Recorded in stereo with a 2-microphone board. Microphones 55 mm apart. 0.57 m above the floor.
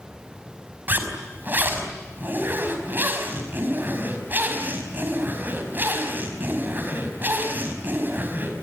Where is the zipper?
35° right (ahead or behind), 4.5 m.